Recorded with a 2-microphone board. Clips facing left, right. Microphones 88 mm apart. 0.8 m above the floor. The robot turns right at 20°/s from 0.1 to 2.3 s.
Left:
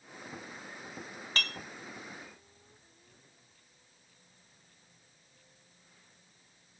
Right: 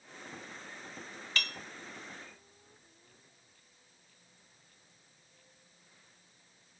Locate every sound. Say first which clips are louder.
1.4 s dishes clattering: left 2 dB; 40° left (ahead or behind), 0.7 m; by 1.6 s 35° left (ahead or behind), 0.7 m